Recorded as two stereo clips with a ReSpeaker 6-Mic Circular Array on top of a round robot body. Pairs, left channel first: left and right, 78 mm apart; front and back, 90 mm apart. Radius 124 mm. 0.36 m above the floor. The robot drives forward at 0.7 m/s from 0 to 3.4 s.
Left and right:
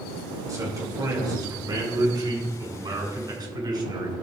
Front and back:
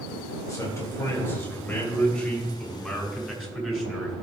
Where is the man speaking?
50° right, 3 m; by 4.1 s 95° right, 2.5 m.